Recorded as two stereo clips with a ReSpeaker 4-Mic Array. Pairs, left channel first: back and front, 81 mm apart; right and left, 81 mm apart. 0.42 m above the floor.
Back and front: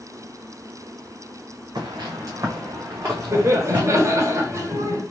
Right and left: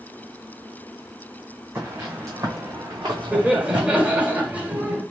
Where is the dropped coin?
No dropped coin in this recording.